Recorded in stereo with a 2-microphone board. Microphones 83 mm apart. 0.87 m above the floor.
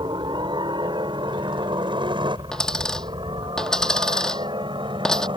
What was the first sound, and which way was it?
A helicopter, 65° right (ahead or behind).